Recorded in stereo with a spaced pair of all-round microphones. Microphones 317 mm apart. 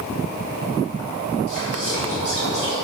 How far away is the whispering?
About 3.5 m.